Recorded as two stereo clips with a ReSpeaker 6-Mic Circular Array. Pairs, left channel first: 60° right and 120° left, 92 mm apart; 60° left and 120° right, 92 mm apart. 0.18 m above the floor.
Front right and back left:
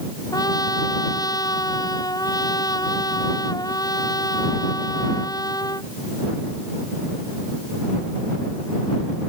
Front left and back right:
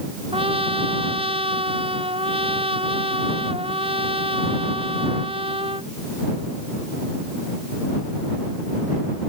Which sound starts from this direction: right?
A trumpet, at 0.3 s.